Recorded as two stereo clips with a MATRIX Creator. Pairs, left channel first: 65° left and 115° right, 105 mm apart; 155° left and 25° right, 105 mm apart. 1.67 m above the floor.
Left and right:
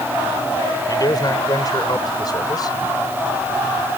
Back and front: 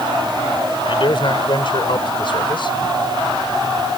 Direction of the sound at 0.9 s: 120° left.